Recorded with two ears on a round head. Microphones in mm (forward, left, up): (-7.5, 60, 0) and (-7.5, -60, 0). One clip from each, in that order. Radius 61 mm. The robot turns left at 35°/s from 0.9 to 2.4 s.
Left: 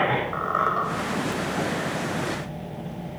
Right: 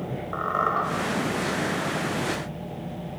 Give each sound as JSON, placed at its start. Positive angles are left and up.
{"t": 0.3, "sound": "a squeak", "side_deg": 10, "distance_m": 1.7}